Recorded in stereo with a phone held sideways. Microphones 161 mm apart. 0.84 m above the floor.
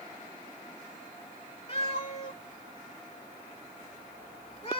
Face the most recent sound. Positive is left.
turn(degrees=40)  # may be behind; listen again after turning